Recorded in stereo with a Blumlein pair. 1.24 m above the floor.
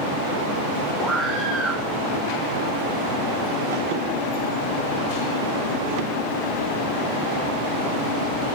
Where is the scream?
Straight ahead, 7.5 m.